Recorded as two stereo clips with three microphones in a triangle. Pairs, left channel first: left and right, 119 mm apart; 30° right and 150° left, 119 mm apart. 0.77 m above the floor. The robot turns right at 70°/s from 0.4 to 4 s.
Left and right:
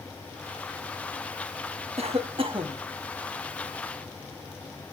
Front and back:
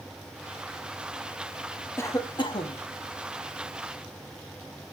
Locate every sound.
2.0 s a cough: 100° right, 1.2 m; by 2.8 s 40° right, 1.2 m